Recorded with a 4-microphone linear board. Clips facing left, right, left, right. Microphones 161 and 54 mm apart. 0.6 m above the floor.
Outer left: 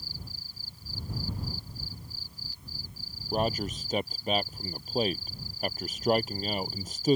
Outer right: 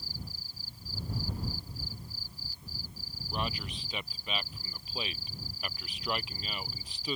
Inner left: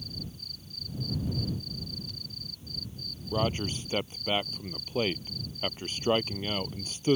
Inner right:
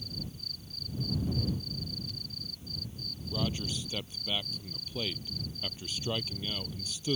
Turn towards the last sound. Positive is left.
turn(degrees=40)  # may be behind; listen again after turning